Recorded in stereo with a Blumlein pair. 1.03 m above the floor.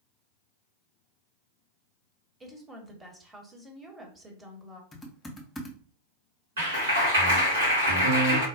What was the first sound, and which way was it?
A woman speaking, 10° right.